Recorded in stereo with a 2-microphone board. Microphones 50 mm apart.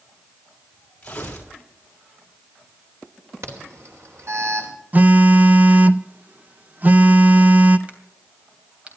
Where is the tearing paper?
20° left (ahead or behind), 4 m.